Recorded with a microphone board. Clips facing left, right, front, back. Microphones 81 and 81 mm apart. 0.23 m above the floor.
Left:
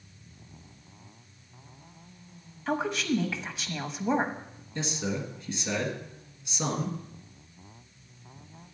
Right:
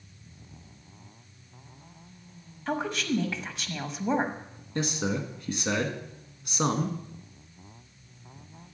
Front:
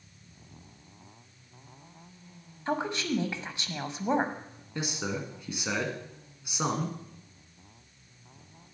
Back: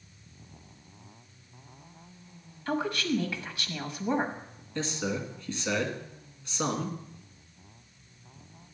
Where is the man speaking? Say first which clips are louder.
Right 3 dB, back 2 dB; 75° right, 1.8 m.